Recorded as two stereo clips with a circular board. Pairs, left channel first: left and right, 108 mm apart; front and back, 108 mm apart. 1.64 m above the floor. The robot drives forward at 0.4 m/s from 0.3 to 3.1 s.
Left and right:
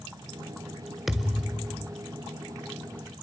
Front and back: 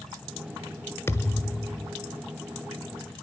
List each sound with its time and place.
1.1 s a thud: 5° right, 1.4 m; by 1.9 s 10° right, 1.3 m